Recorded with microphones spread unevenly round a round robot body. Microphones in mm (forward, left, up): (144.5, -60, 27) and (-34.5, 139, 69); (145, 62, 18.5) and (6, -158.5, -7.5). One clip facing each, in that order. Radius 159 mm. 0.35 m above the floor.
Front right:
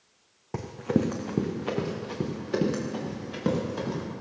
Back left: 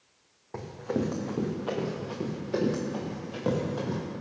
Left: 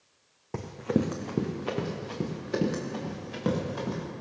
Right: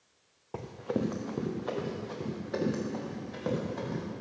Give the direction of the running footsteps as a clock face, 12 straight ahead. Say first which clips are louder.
Front right 4 dB, left 5 dB; 12 o'clock.